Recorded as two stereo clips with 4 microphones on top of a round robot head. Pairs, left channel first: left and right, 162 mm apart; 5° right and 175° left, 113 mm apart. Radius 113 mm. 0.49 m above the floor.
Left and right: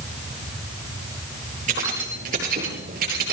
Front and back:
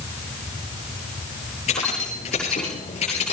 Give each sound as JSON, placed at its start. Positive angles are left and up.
{"t": 1.7, "sound": "keys jangling", "azimuth_deg": -40, "distance_m": 9.0}